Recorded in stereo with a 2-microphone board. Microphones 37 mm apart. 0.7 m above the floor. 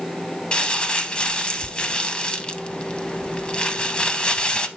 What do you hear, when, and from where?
0.5 s crumpling: 30° left (ahead or behind), 0.6 m